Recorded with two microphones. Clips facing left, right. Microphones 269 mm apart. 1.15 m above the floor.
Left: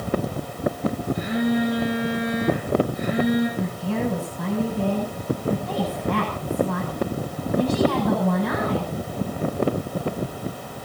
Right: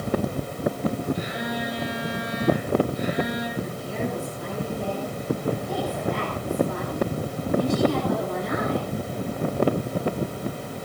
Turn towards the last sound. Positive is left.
turn(degrees=80)